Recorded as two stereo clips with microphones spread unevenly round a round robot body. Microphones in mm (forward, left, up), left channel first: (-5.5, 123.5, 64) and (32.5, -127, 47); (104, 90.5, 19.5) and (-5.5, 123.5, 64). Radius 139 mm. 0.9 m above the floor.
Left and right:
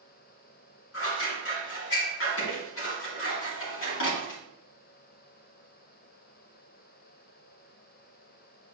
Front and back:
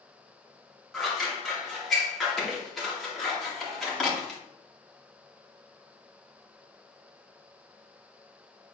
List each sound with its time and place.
0.9 s scissors: 65° left, 2.5 m